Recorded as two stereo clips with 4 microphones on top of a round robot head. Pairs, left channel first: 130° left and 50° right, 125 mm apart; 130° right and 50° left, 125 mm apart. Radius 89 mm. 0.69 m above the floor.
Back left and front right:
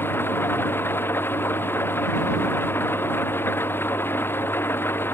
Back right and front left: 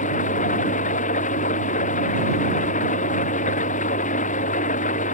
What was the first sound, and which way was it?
An engine running, 155° right.